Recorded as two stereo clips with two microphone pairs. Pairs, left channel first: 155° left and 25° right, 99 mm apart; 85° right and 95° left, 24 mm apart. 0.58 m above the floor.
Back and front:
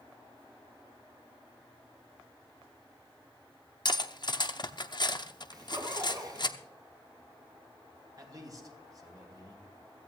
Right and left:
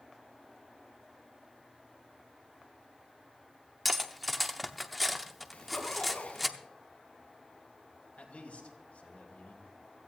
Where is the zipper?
70° right, 2 m.